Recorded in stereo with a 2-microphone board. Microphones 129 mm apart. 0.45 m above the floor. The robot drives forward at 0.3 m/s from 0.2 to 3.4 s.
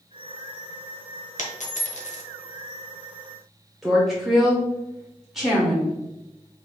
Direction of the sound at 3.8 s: Centre (ahead or behind).